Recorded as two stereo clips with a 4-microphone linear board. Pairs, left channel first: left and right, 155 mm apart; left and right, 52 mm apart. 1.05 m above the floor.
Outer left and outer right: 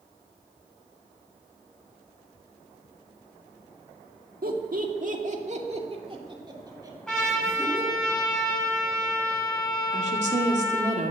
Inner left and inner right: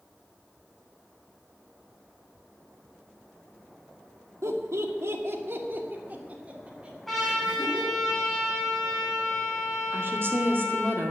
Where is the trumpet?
5° left (ahead or behind), 6.5 m.